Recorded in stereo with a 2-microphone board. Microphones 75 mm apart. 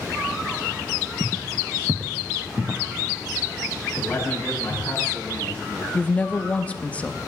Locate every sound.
1.2 s footsteps: 40° right (ahead or behind), 0.7 m; by 4.9 s 25° right (ahead or behind), 5 m
3.9 s a man speaking: 20° left (ahead or behind), 6 m
5.9 s a woman speaking: 20° left (ahead or behind), 0.8 m